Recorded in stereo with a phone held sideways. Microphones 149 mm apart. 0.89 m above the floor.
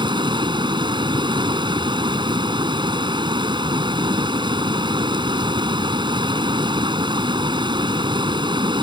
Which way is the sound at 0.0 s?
30° right (ahead or behind).